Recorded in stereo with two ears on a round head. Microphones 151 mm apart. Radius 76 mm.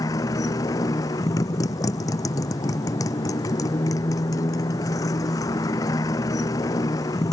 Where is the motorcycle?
20° left (ahead or behind).